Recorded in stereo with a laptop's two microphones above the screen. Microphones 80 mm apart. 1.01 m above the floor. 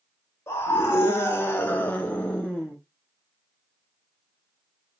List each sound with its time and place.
0.5 s a scream: 30° left (ahead or behind), 1.0 m; by 2.8 s 5° left (ahead or behind), 0.9 m